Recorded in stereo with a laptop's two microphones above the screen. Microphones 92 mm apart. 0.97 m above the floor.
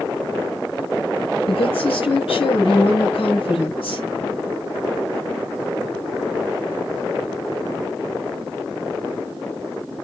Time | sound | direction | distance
1.5 | a woman speaking | 85° left | 5 m